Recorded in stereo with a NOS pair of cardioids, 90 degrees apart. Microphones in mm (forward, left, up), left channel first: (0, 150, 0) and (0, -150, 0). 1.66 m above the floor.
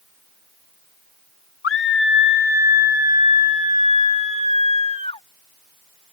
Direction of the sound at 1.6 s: 45° left.